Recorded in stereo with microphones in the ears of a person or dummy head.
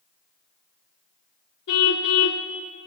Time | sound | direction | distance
1.7 | a car horn | 60° left (ahead or behind) | 2 m